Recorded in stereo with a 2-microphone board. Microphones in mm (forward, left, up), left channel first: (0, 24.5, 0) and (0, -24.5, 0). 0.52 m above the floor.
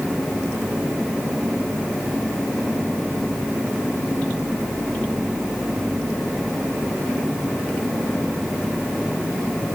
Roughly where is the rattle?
No rattle in this recording.